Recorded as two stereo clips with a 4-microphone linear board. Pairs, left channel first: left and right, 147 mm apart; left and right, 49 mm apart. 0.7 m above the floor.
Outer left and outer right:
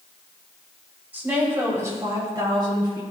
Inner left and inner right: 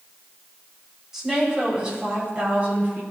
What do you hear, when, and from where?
1.1 s a woman speaking: 15° right (ahead or behind), 3.5 m; by 3.0 s 40° right (ahead or behind), 3.5 m